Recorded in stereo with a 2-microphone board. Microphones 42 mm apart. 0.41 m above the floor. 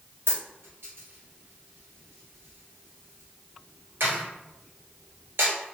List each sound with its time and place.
0.3 s a dropped coin: 75° right (ahead or behind), 1.3 m